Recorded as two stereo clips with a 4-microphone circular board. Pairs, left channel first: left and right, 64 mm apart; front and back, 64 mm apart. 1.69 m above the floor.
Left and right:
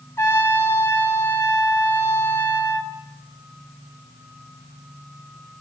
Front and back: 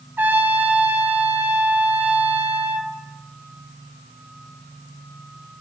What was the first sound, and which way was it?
A trumpet, 125° left.